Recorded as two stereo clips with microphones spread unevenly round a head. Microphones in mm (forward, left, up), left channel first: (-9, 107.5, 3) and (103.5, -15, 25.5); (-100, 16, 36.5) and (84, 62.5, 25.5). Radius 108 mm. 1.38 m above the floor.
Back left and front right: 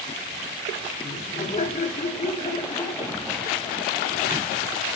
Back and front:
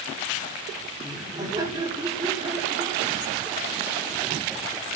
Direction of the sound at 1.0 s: 85° left.